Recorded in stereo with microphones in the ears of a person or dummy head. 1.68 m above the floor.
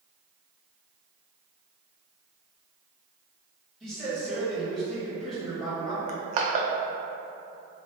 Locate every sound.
3.8 s a man speaking: centre (ahead or behind), 1.5 m
6.1 s crushing: 40° right (ahead or behind), 0.5 m